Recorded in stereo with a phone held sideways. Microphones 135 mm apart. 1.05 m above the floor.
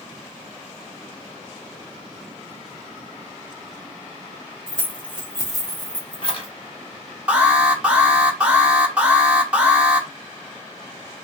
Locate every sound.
4.7 s keys jangling: 5° left (ahead or behind), 1.6 m; by 6.5 s 50° left (ahead or behind), 1.1 m
7.3 s an alarm: 10° right (ahead or behind), 1.0 m